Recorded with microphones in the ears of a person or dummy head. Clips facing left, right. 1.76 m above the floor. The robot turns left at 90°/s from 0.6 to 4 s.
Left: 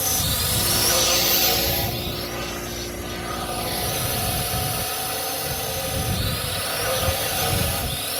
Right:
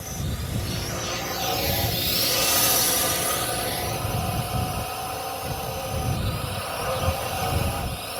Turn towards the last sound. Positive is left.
turn(degrees=160)